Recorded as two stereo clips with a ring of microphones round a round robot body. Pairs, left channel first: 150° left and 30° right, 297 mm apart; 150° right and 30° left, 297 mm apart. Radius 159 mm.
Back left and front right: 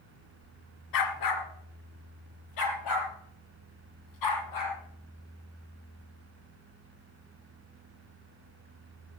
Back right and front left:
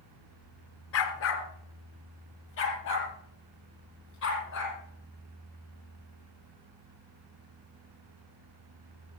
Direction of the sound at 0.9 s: 165° left.